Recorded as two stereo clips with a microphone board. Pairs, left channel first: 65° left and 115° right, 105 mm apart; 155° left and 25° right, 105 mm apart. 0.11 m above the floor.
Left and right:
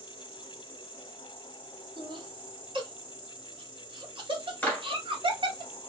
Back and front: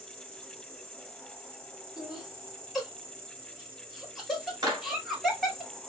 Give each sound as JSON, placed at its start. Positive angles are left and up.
{"t": 0.0, "sound": "an insect", "azimuth_deg": -50, "distance_m": 1.8}
{"t": 2.0, "sound": "laughter", "azimuth_deg": -110, "distance_m": 1.6}
{"t": 4.6, "sound": "a clap", "azimuth_deg": 0, "distance_m": 1.6}